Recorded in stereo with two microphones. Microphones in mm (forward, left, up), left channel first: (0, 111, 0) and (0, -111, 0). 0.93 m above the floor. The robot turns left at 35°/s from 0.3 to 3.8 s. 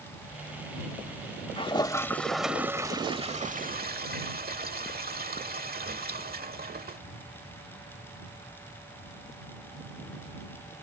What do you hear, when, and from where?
1.6 s a toilet flushing: 30° left; by 7.0 s 50° right